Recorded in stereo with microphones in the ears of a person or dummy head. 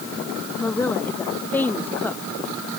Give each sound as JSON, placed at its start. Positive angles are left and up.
{"t": 0.6, "sound": "a woman speaking", "side_deg": 10}